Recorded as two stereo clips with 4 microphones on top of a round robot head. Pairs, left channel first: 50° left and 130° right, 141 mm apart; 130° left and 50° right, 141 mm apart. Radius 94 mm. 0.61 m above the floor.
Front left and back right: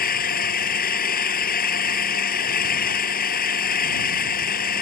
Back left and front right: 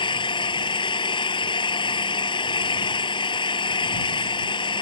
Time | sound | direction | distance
0.0 | an engine running | 70° left | ?